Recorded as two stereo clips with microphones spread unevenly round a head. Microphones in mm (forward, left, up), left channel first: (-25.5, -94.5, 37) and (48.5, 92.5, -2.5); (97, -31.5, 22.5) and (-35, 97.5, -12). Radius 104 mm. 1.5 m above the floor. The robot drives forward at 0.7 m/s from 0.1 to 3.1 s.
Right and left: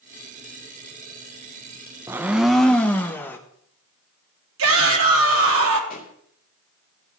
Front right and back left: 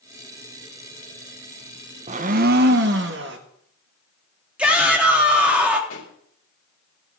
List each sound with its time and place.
2.1 s a blender: 155° left, 0.6 m; by 3.4 s 175° left, 1.0 m
4.6 s a shout: 50° left, 3 m
5.9 s a pop: 65° right, 3 m